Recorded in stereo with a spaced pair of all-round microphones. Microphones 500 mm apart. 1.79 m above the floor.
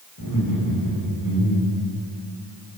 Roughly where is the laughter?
Left.